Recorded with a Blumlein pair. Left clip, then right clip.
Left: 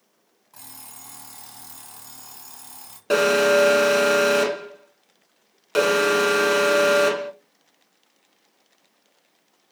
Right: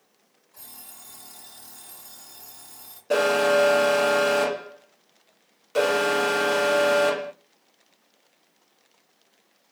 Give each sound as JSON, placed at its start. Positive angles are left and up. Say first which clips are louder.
{"t": 0.5, "sound": "an alarm clock", "louder": "left 3 dB", "azimuth_deg": 50, "distance_m": 3.0}
{"t": 3.1, "sound": "an alarm", "louder": "left 3 dB", "azimuth_deg": 40, "distance_m": 1.8}